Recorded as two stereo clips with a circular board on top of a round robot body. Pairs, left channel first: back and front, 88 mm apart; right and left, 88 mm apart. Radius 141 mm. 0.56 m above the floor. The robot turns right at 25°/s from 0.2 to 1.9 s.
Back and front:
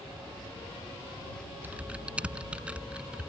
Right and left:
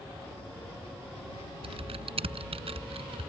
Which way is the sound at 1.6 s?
75° left.